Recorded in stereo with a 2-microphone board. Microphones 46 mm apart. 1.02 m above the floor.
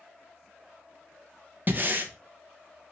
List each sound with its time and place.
1.7 s breathing: 40° right (ahead or behind), 0.9 m